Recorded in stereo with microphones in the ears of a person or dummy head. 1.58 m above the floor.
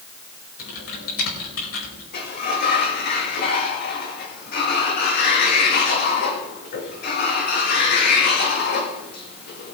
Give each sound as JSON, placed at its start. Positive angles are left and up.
{"t": 0.6, "sound": "typing on a keyboard", "side_deg": 80, "distance_m": 4.5}
{"t": 2.1, "sound": "a sliding door", "side_deg": 50, "distance_m": 2.0}